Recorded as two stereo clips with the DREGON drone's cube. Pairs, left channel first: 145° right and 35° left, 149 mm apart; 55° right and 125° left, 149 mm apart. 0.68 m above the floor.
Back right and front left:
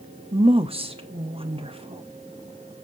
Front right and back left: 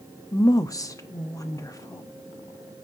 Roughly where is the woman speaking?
Ahead.